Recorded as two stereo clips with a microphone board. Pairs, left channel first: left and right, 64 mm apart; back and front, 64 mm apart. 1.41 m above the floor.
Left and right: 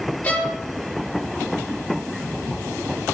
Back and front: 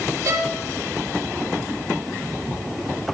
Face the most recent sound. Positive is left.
turn(degrees=30)